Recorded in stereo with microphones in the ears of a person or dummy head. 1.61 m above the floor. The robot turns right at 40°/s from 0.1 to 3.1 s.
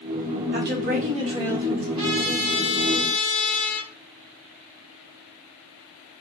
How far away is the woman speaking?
About 2 m.